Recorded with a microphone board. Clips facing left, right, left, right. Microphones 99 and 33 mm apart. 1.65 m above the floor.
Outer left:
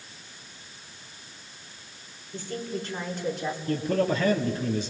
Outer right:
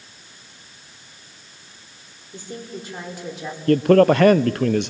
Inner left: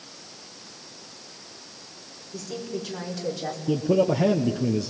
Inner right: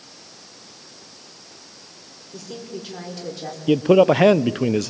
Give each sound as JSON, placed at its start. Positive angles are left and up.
{"t": 2.3, "sound": "a woman speaking", "side_deg": -15, "distance_m": 5.0}
{"t": 3.7, "sound": "a man speaking", "side_deg": -70, "distance_m": 0.7}